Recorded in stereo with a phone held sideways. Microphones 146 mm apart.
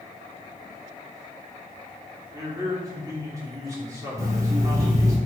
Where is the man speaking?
20° right (ahead or behind), 2.5 m.